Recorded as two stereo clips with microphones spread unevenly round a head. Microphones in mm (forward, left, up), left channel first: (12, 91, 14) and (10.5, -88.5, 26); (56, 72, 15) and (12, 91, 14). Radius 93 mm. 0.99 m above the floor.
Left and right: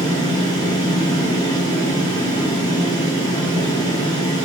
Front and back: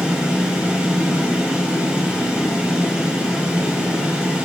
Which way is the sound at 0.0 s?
120° left.